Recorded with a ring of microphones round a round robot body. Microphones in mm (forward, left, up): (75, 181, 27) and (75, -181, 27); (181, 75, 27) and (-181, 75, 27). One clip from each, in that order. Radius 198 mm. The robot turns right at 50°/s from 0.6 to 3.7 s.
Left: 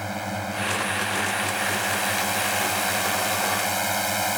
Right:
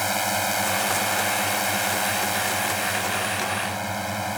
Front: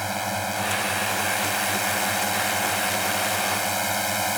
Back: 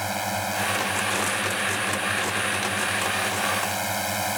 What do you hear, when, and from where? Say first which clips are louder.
0.0 s a drone: right 6 dB, even; 90° right; by 4.4 s 65° left